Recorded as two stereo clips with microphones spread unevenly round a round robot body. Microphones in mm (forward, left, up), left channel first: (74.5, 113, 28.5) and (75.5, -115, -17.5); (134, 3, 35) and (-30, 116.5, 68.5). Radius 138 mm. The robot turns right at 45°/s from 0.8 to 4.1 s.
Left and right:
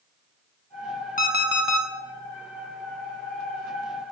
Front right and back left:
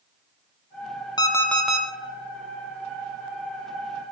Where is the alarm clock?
30° left, 1.7 m; by 1.9 s 60° left, 1.7 m.